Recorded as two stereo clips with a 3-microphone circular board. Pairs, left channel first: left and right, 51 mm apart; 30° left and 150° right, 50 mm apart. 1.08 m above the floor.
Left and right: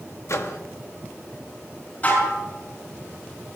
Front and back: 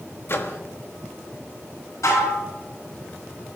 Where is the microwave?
70° left, 1.5 m.